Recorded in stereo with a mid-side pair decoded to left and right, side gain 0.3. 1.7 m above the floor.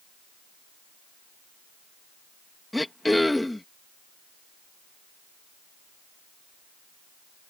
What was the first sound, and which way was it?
Throat clearing, 15° left.